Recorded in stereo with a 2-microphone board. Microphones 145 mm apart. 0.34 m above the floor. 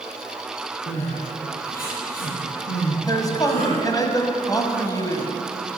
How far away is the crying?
About 5 m.